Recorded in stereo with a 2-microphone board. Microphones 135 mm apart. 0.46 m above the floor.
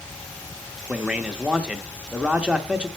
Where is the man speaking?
5° right (ahead or behind), 0.7 m.